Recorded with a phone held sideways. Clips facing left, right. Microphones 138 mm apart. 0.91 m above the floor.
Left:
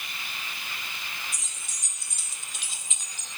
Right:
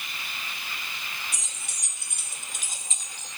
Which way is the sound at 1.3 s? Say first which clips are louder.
Right 2 dB; 75° right (ahead or behind).